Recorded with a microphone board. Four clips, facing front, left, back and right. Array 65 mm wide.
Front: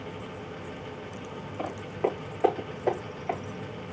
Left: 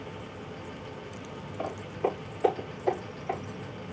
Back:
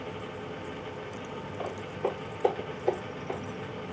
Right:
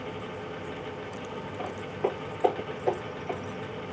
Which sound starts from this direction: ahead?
Footsteps, at 1.6 s.